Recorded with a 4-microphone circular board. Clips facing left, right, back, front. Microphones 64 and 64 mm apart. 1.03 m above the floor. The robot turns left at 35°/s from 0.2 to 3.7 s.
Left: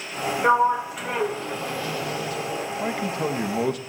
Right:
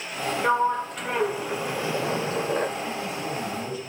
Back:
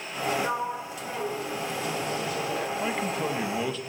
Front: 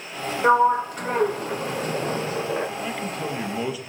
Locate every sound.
0.4 s a sliding door: 20° left, 1.0 m; by 2.7 s 60° right, 1.0 m
2.8 s a man speaking: 110° left, 1.3 m; by 3.8 s 80° left, 1.3 m